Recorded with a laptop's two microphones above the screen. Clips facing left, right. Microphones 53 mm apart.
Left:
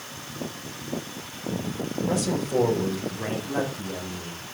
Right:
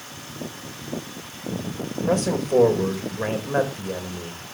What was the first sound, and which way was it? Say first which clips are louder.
A man speaking: right 5 dB; 50° right (ahead or behind).